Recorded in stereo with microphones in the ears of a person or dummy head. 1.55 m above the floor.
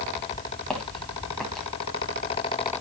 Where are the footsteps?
5° left (ahead or behind), 4 m.